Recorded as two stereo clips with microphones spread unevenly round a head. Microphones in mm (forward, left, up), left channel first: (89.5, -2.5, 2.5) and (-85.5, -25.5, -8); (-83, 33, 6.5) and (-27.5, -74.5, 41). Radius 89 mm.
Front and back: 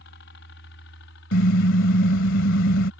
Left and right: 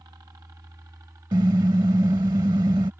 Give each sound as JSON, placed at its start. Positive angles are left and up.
{"t": 0.0, "sound": "a helicopter", "azimuth_deg": 10}
{"t": 1.3, "sound": "a car horn", "azimuth_deg": 0}